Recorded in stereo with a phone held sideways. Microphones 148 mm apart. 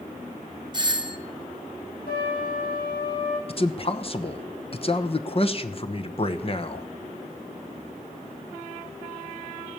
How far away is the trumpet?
About 7 m.